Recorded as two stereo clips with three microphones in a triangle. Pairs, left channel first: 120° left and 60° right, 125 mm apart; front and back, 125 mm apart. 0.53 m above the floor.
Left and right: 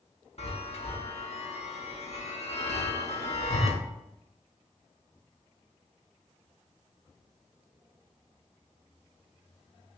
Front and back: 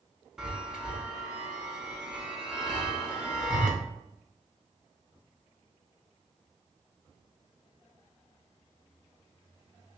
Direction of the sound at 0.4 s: 95° left.